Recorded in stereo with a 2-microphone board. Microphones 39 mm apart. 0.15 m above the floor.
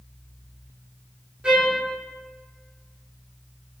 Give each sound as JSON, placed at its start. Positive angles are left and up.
{"t": 1.4, "sound": "a trumpet", "side_deg": -25, "distance_m": 1.3}